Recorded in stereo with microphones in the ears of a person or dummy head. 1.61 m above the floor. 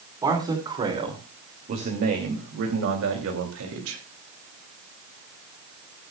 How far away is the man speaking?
About 4.5 m.